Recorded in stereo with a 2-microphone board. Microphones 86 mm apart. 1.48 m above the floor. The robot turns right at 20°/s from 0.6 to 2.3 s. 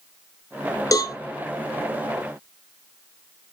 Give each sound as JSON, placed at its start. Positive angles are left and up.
{"t": 0.9, "sound": "a cowbell", "side_deg": 40, "distance_m": 0.6}